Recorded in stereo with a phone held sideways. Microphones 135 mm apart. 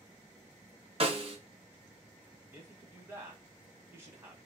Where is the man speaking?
20° right (ahead or behind), 1.2 m.